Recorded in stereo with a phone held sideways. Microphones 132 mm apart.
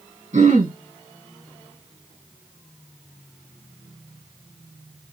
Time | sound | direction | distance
0.3 | throat clearing | 70° right (ahead or behind) | 3 m